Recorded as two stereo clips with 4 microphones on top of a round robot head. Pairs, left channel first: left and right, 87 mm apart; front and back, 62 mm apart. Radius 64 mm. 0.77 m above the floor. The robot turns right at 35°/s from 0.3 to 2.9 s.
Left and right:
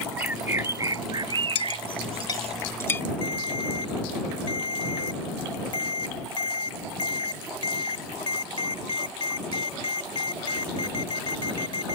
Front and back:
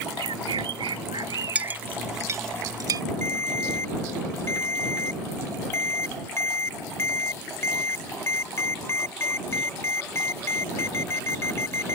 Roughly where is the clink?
Left.